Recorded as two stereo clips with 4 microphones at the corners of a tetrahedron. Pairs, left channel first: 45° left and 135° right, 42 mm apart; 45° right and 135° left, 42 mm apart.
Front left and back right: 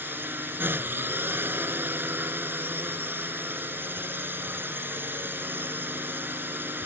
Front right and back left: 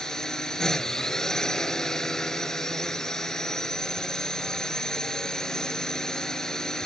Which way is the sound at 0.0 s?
120° right.